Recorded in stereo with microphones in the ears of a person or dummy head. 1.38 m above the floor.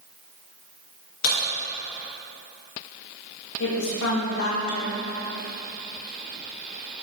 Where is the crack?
70° left (ahead or behind), 2.5 m.